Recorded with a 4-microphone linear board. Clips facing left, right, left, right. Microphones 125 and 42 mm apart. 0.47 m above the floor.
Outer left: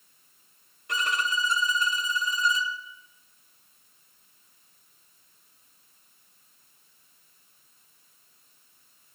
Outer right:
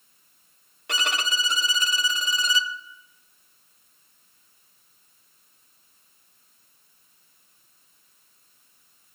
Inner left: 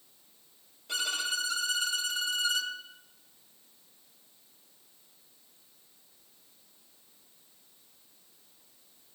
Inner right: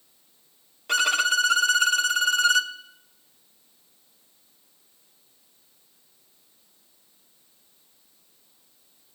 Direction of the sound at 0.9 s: 85° right.